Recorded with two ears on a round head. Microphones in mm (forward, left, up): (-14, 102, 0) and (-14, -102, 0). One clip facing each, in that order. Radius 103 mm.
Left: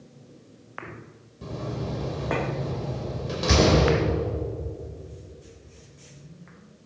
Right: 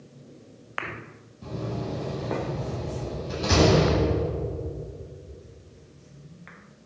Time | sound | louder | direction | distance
1.4 | a door slam | right 1 dB | 75° left (ahead or behind) | 5 m